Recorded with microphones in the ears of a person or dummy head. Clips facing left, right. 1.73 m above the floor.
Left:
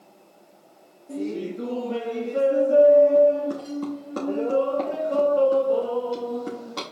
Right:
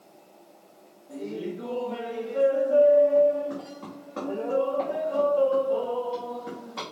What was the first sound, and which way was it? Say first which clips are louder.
Laughter: left 4 dB; 60° left (ahead or behind).